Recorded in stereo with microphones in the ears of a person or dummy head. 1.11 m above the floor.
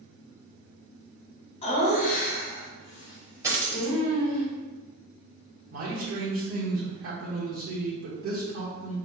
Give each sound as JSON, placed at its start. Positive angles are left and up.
{"t": 1.6, "sound": "laughter", "side_deg": 30, "distance_m": 0.8}
{"t": 3.4, "sound": "a dropped coin", "side_deg": -15, "distance_m": 1.0}
{"t": 5.7, "sound": "a man speaking", "side_deg": -75, "distance_m": 1.1}